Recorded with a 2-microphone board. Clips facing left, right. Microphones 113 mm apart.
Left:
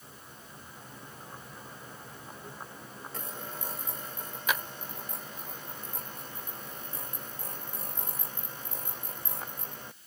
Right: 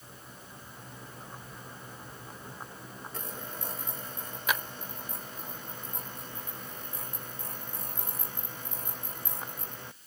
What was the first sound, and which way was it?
Only background noise.